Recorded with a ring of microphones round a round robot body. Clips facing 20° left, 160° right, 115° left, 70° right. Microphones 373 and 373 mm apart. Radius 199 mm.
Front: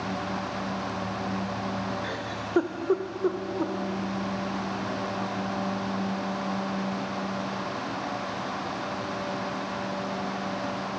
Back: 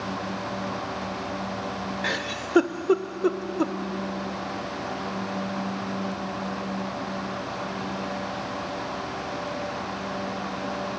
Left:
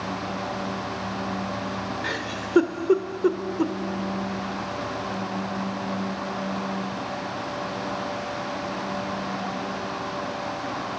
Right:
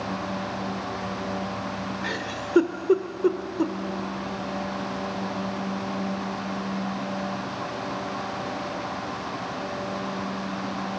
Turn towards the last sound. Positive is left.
turn(degrees=-160)